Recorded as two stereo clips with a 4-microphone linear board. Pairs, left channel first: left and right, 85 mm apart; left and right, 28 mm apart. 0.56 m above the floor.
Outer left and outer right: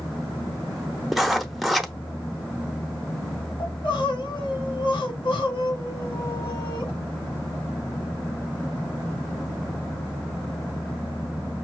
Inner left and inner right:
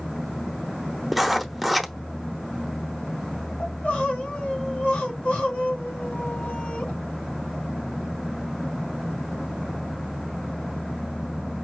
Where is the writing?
5° right (ahead or behind), 0.7 m.